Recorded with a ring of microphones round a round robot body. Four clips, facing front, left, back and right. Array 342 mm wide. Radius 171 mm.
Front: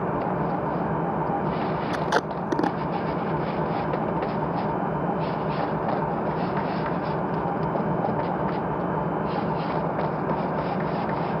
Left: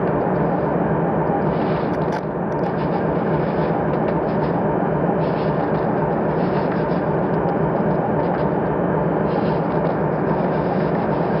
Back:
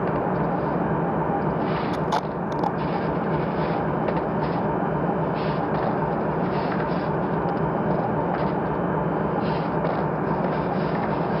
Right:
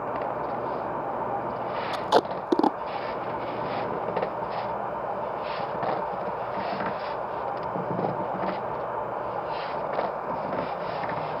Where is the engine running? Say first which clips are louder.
Left 10 dB, back 2 dB; 95° left.